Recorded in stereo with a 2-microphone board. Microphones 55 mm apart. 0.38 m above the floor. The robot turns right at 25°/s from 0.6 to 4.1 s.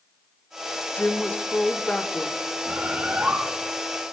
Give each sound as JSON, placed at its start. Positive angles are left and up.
{"t": 0.9, "sound": "a woman speaking", "side_deg": 20, "distance_m": 0.8}
{"t": 2.6, "sound": "a bird", "side_deg": -25, "distance_m": 3.5}